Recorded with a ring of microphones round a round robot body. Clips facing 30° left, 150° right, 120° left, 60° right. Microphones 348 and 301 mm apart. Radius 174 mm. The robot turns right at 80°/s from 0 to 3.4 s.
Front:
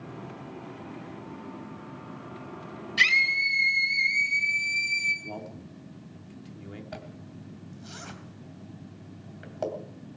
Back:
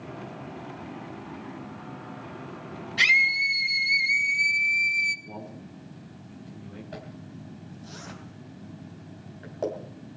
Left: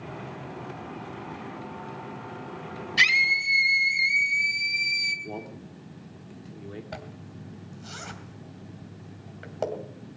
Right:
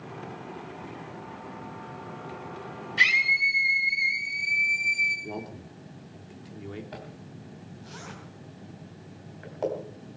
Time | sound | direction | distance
3.0 | a scream | 90° left | 3 m
5.2 | a man speaking | 20° left | 2.5 m
6.9 | a zipper | 90° left | 2.5 m